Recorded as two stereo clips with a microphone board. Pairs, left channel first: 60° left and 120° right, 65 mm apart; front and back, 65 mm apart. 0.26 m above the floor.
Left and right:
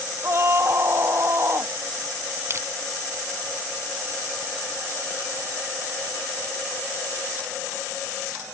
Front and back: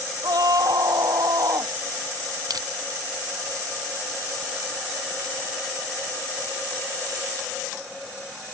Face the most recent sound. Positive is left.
turn(degrees=-170)